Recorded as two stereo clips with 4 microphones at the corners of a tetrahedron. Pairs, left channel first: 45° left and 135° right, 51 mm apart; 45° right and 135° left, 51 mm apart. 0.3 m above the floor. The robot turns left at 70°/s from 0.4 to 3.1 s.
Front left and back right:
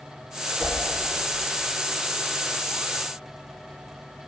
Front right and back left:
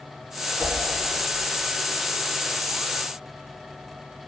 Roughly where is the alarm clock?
I don't hear an alarm clock.